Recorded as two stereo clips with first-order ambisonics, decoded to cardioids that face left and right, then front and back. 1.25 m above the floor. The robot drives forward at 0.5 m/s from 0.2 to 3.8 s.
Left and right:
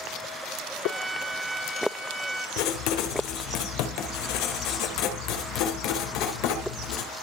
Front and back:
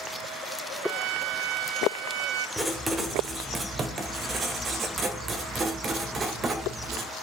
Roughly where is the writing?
Left.